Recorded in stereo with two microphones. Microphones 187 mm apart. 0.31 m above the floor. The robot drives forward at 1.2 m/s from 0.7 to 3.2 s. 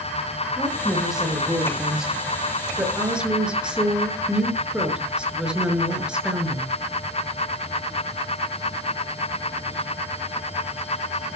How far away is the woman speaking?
About 8.5 m.